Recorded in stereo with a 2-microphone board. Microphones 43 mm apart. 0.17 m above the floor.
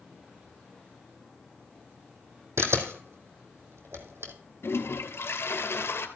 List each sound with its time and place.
2.6 s a camera shutter: 80° right, 1.9 m
4.6 s a toilet flushing: 70° left (ahead or behind), 1.7 m